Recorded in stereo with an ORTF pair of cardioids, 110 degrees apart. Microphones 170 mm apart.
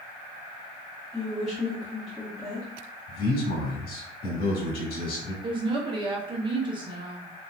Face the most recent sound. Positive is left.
turn(degrees=-30)